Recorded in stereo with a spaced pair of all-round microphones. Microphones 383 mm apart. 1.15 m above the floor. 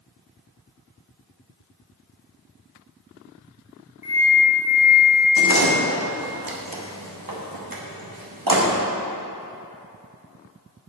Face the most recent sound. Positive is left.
turn(degrees=-60)  # may be behind; listen again after turning